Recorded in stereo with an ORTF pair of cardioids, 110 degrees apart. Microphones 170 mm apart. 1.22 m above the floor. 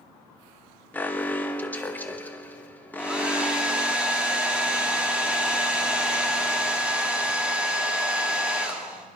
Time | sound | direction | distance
0.9 | an alarm | 10° left | 1.1 m
3.0 | a hair dryer | 5° right | 2 m